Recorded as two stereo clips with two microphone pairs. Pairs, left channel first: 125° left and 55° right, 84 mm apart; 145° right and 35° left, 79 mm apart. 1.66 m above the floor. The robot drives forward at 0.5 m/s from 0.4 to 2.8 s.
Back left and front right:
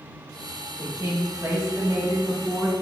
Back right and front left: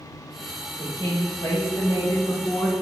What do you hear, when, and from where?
0.8 s a woman speaking: 105° right, 1.5 m; by 2.7 s 135° right, 2.0 m